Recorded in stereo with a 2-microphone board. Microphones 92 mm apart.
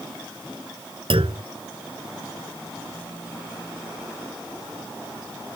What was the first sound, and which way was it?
A clunk, 80° right.